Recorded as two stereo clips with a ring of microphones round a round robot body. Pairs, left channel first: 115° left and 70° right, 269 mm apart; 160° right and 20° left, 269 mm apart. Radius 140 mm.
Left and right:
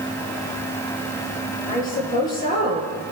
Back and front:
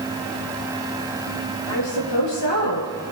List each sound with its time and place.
1.7 s a woman speaking: 175° left, 10 m